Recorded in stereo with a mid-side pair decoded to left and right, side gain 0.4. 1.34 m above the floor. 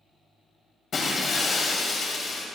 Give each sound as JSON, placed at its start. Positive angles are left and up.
{"t": 0.9, "sound": "breaking glass", "azimuth_deg": 50, "distance_m": 3.0}